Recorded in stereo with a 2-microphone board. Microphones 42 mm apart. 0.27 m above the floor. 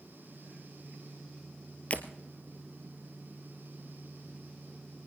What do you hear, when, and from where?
1.9 s breaking glass: 40° left (ahead or behind), 1.2 m